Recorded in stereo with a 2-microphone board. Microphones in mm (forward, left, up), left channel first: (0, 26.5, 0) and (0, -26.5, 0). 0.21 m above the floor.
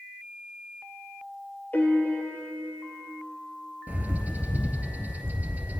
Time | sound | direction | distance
1.7 | a piano | 30° left (ahead or behind) | 2.5 m
3.9 | a bird | 30° right (ahead or behind) | 1.7 m